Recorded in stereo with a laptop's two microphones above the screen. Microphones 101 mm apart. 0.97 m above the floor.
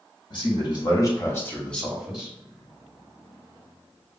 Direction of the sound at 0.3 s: 50° left (ahead or behind).